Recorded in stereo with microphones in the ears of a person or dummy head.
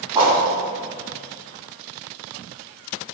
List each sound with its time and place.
0.1 s a whoosh: 20° right (ahead or behind), 1.5 m